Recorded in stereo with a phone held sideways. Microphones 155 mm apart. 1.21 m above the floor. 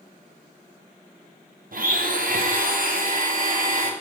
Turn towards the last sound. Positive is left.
turn(degrees=-65)  # may be behind; listen again after turning